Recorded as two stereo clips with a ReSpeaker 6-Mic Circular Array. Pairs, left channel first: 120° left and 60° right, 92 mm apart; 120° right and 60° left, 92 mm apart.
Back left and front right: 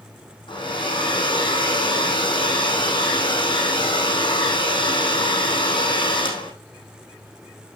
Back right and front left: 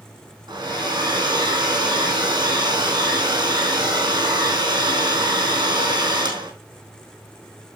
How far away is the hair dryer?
About 3.5 m.